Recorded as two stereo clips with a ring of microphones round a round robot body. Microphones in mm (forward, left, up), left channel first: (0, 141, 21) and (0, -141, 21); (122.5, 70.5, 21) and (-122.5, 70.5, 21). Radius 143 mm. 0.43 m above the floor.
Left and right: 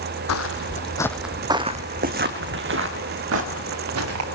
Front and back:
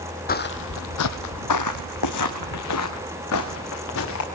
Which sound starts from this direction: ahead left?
Footsteps, at 0.3 s.